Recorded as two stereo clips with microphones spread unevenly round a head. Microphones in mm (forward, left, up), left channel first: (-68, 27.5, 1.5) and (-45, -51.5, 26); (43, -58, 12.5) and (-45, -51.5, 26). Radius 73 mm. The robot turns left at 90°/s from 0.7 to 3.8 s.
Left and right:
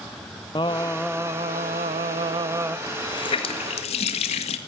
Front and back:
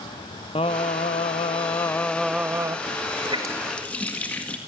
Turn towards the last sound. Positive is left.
turn(degrees=80)